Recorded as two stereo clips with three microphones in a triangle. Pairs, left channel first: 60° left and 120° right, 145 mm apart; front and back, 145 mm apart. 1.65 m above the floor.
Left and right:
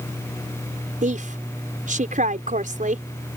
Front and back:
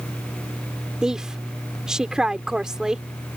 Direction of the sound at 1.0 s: 95° right.